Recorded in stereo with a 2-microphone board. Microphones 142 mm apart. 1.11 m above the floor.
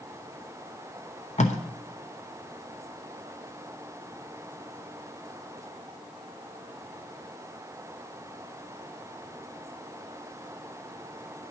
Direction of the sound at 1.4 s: 55° left (ahead or behind).